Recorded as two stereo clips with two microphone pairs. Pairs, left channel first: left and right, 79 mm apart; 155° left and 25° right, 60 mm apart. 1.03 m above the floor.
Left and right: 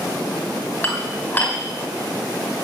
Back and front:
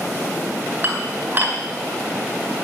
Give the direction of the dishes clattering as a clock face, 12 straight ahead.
11 o'clock.